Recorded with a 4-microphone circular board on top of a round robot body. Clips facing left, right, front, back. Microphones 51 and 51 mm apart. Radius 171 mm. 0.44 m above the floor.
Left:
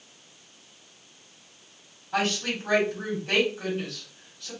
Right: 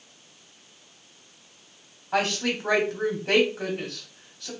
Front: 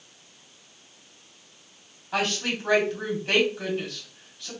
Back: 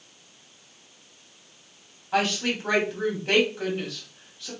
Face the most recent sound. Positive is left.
turn(degrees=-100)